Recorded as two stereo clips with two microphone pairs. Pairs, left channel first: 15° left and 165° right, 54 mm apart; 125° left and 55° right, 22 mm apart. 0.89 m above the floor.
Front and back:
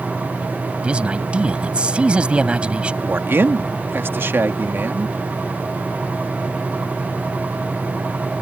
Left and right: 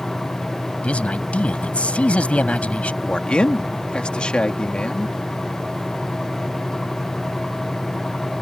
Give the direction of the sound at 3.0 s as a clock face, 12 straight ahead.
7 o'clock.